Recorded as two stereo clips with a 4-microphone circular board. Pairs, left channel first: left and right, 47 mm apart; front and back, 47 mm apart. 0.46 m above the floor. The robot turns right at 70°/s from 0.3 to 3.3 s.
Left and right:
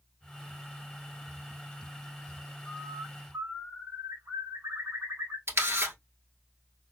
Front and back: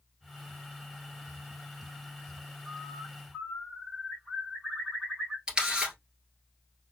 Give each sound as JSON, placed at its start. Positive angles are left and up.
{"t": 2.6, "sound": "a bird", "azimuth_deg": -120, "distance_m": 2.0}
{"t": 5.5, "sound": "a camera shutter", "azimuth_deg": -105, "distance_m": 1.5}